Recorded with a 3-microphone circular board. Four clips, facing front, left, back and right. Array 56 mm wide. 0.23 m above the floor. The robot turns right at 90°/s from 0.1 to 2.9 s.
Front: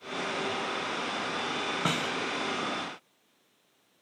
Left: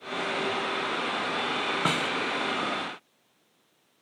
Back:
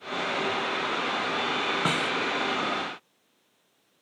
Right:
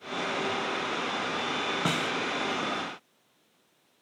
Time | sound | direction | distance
1.9 | a snare drum | 125° left | 1.0 m